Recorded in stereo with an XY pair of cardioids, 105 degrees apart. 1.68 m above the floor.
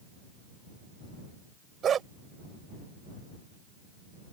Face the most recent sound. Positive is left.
turn(degrees=-55)